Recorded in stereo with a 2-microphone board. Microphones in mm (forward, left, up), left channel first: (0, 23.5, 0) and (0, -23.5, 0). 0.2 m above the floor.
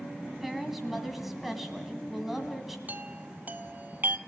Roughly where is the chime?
Right.